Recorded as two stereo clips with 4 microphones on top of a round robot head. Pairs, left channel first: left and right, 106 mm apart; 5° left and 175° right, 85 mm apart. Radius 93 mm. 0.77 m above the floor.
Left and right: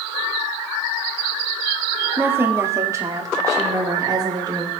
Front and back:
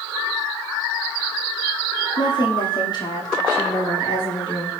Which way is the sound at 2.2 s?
20° right.